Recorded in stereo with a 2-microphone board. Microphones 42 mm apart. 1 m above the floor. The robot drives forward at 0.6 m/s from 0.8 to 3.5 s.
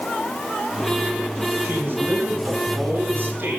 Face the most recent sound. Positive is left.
turn(degrees=-55)  # may be behind; listen again after turning